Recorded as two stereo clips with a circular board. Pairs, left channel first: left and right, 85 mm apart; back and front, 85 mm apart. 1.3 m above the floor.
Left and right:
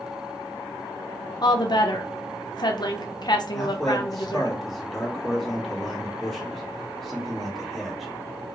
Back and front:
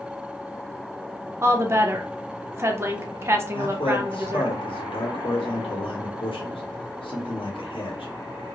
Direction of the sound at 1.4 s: 60° left.